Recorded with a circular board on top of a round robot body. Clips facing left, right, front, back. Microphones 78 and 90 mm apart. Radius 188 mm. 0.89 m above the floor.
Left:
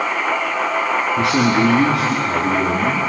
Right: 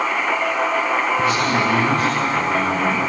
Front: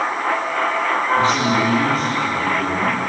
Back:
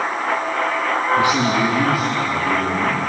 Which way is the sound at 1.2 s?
105° left.